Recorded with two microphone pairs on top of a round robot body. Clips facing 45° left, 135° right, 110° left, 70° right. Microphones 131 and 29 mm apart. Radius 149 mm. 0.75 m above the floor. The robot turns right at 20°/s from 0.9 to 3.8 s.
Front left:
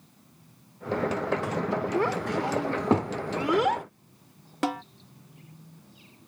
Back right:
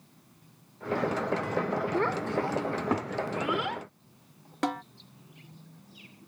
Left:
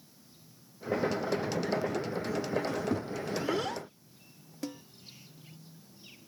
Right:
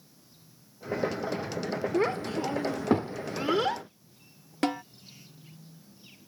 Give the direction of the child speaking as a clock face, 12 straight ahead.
1 o'clock.